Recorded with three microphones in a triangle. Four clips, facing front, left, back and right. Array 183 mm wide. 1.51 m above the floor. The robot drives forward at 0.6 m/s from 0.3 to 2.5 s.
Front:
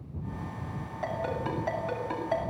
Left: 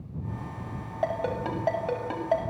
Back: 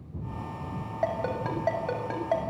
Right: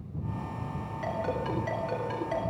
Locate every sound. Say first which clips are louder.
1.0 s a ringtone: left 3 dB, back 3 dB; 130° left, 7 m; by 2.4 s 135° left, 7.5 m